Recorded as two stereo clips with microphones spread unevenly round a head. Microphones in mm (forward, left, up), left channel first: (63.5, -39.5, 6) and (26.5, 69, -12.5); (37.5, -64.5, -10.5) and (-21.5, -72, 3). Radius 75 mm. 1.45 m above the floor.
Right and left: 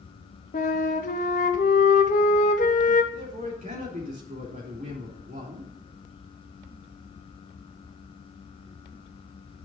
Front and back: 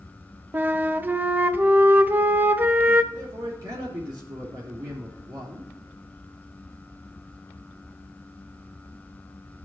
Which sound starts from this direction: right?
A flute, at 0.5 s.